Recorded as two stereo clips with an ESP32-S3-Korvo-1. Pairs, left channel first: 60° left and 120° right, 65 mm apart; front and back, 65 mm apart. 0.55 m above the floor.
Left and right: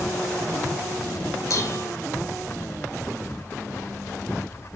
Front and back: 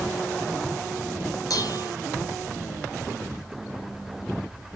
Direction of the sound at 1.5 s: 25° left.